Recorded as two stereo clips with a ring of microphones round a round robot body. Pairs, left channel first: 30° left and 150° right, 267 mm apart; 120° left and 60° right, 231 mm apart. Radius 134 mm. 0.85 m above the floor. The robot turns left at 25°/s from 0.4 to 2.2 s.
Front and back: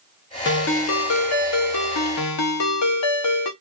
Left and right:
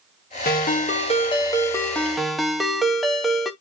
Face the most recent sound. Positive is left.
turn(degrees=30)